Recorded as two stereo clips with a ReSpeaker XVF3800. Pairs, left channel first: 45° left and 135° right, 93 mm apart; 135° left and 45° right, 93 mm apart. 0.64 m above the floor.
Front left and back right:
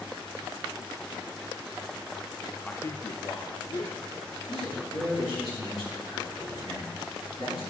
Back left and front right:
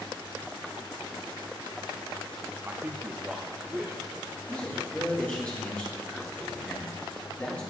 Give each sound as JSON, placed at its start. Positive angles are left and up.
{"t": 2.6, "sound": "a man speaking", "azimuth_deg": -15, "distance_m": 0.5}
{"t": 4.5, "sound": "a man speaking", "azimuth_deg": 60, "distance_m": 4.0}